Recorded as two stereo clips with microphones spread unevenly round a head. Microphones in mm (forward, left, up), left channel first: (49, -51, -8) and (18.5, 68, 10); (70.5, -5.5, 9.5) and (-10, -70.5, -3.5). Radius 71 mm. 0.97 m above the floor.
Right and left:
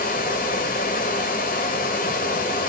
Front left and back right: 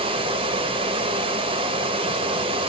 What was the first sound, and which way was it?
Running water, 110° right.